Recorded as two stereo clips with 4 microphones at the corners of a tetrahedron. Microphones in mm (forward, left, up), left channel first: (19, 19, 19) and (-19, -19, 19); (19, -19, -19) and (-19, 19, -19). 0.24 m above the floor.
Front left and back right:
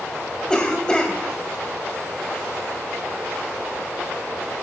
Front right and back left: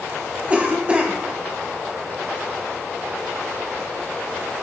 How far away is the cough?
About 1.1 m.